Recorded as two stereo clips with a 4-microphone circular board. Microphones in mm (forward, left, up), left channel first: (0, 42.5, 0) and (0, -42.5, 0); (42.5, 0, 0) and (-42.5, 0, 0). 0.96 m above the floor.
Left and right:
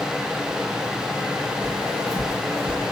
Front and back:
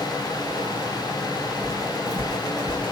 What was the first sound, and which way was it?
Footsteps, 135° right.